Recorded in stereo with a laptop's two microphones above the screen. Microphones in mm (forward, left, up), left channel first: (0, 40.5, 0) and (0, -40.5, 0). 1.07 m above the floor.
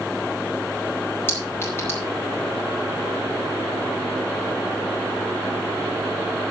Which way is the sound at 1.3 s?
25° left (ahead or behind).